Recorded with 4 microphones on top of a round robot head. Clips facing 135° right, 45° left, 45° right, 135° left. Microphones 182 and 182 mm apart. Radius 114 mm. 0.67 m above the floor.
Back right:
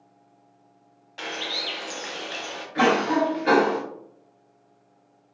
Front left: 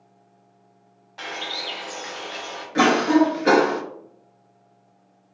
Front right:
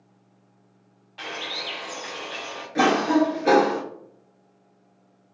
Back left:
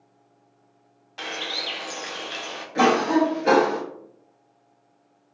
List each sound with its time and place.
1.2 s a bird: 170° left, 0.9 m
2.8 s a cough: 40° left, 0.9 m